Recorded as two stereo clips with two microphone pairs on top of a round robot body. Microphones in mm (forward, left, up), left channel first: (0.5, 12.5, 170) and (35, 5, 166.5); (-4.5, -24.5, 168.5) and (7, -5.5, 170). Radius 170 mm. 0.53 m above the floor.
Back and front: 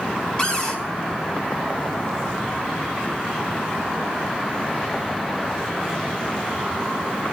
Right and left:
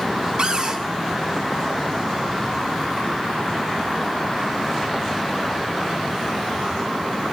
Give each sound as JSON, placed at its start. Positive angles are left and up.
{"t": 0.4, "sound": "a cupboard door", "azimuth_deg": 105, "distance_m": 4.0}